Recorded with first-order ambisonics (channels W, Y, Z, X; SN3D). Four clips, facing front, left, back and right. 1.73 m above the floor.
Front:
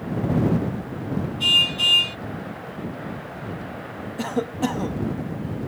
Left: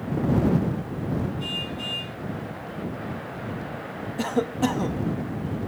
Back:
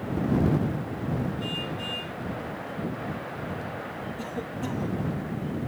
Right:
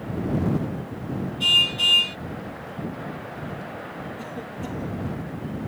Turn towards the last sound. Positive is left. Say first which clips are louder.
# left 9 dB, front 12 dB
turn(degrees=50)